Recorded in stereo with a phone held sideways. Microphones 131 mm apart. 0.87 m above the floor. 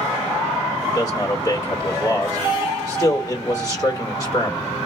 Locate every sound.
0.8 s a man speaking: 30° left (ahead or behind), 2 m